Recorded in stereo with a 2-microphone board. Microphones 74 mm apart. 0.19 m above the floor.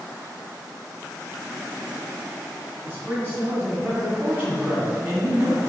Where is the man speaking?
25° right (ahead or behind), 1.5 m.